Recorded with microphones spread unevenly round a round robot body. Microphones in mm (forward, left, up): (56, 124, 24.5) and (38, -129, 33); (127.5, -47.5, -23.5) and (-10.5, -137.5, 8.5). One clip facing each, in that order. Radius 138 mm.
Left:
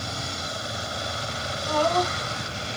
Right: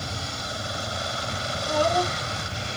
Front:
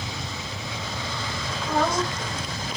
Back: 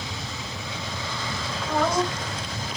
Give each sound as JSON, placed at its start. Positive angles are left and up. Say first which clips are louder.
{"t": 1.7, "sound": "a woman speaking", "louder": "even, back 1 dB", "azimuth_deg": -20, "distance_m": 2.5}